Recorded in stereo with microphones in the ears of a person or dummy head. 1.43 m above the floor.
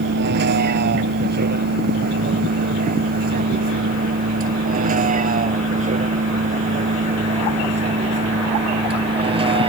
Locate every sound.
0.0 s a vehicle: 55° right (ahead or behind); by 9.7 s 25° right (ahead or behind)